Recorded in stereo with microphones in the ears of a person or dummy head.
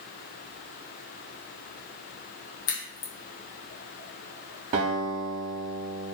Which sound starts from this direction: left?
A crack, at 2.7 s.